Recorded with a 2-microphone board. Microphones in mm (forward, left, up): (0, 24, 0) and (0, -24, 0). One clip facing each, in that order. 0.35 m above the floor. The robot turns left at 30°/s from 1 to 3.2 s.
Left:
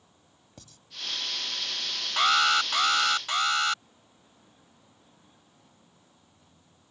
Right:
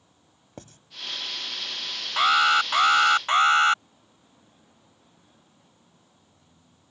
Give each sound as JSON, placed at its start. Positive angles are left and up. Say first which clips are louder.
{"t": 0.6, "sound": "writing", "louder": "right 9 dB", "side_deg": -45}
{"t": 2.2, "sound": "an alarm", "louder": "right 3 dB", "azimuth_deg": -10}